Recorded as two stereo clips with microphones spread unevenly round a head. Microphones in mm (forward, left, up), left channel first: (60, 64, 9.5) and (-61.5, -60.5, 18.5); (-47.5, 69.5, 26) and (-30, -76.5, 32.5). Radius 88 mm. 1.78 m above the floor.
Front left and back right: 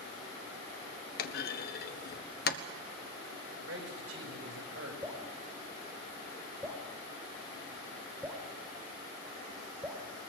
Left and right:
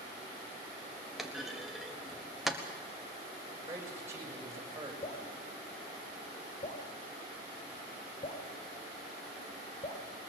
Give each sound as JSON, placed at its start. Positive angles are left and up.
{"t": 1.2, "sound": "a clunk", "azimuth_deg": 5, "distance_m": 1.2}
{"t": 3.6, "sound": "a man speaking", "azimuth_deg": -155, "distance_m": 6.5}
{"t": 5.0, "sound": "dripping", "azimuth_deg": 150, "distance_m": 3.5}